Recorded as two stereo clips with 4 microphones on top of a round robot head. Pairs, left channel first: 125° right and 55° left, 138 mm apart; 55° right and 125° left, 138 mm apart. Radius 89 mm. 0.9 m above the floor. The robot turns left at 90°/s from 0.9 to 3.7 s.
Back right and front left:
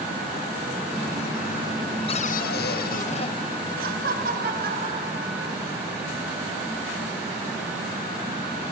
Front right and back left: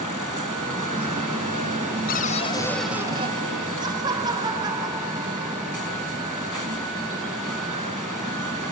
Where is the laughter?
65° left, 4.5 m.